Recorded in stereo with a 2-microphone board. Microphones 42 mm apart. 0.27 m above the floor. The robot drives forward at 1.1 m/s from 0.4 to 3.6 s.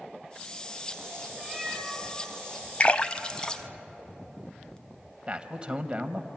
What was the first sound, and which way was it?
A cat meowing, 10° right (ahead or behind).